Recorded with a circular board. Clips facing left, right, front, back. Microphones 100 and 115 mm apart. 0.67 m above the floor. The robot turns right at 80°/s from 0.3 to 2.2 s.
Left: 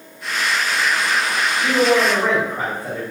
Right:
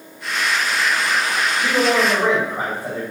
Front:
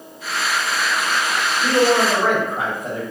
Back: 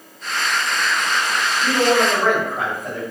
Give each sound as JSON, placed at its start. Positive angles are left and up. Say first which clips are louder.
{"t": 1.6, "sound": "a man speaking", "louder": "left 2 dB, front 1 dB", "azimuth_deg": -80, "distance_m": 1.6}